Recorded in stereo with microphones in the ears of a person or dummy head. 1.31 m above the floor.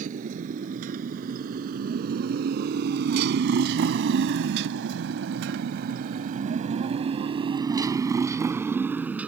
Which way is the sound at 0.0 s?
50° right (ahead or behind).